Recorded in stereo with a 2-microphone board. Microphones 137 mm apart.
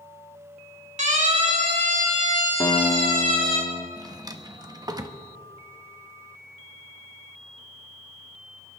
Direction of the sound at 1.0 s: 60° right (ahead or behind).